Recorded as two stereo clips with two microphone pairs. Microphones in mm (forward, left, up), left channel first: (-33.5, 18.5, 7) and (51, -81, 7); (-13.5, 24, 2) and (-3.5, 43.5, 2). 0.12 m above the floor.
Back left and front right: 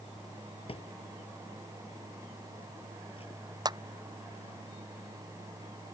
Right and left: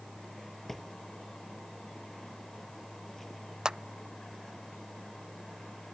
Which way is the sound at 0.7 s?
165° left.